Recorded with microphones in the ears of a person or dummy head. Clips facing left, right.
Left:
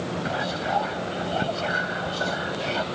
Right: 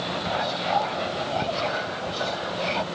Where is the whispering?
10° left (ahead or behind).